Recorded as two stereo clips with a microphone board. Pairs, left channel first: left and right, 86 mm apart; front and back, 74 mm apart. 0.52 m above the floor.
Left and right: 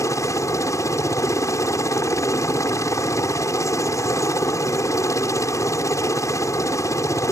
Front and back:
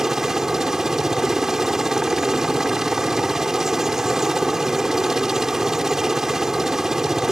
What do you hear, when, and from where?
0.0 s a helicopter: 100° left